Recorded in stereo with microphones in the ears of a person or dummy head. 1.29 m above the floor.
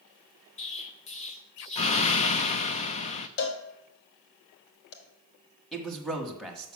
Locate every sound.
0.6 s an explosion: 35° left (ahead or behind), 0.5 m
3.4 s a cowbell: 60° left (ahead or behind), 1.1 m
5.7 s a man speaking: 5° left (ahead or behind), 1.3 m